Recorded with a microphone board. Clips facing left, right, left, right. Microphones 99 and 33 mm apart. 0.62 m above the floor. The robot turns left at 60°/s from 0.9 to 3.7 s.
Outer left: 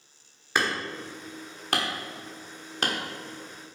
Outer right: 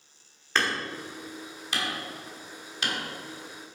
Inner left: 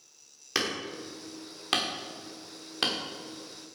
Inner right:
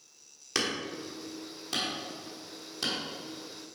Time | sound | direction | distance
0.6 | hammering | 10° left (ahead or behind) | 1.1 m